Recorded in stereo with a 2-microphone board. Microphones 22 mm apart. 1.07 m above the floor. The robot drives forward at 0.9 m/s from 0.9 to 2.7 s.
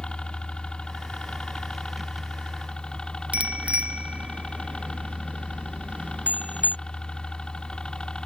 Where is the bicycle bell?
70° right (ahead or behind).